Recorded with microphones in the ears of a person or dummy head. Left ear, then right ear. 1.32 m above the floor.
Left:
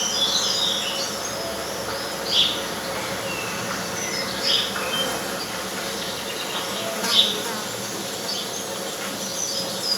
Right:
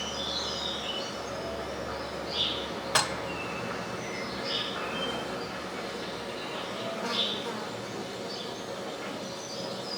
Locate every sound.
0.0 s an insect: 70° left (ahead or behind), 0.8 m
3.0 s dishes clattering: 65° right (ahead or behind), 0.8 m